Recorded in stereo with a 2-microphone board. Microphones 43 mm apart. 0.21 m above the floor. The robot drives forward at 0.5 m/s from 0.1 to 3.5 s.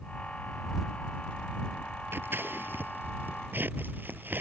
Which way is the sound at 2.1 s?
60° right (ahead or behind).